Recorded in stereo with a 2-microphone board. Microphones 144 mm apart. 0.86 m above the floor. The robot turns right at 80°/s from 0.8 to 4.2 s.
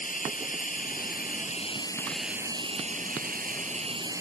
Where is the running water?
70° left; by 4.2 s 20° right.